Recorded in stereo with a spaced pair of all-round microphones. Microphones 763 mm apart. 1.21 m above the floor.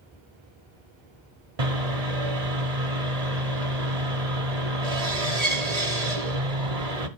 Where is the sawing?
55° right (ahead or behind), 1.7 m.